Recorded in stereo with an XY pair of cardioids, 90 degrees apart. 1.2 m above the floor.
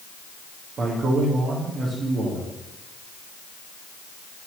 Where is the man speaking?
60° right, 2 m.